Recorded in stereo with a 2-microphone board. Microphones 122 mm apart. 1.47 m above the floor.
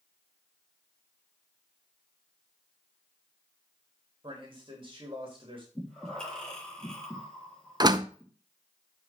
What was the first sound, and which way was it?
A man speaking, 40° right (ahead or behind).